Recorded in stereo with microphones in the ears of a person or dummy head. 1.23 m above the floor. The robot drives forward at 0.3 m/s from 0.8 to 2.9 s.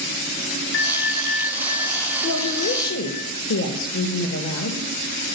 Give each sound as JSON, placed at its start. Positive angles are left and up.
{"t": 0.7, "sound": "a bell", "side_deg": 60, "distance_m": 0.5}
{"t": 2.2, "sound": "a woman speaking", "side_deg": 75, "distance_m": 1.3}